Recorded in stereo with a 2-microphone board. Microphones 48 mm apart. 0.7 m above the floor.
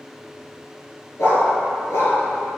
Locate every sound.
1.2 s a dog barking: 70° left (ahead or behind), 2.5 m